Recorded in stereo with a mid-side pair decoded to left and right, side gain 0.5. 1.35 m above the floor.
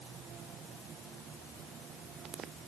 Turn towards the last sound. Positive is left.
No sound to turn to.